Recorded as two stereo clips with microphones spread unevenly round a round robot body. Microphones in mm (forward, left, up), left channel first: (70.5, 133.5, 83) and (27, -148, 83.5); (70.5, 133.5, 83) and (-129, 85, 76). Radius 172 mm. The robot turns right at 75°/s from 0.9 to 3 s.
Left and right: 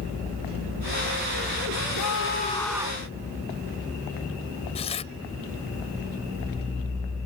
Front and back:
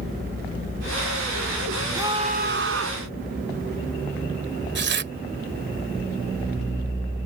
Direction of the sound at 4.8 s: 155° left.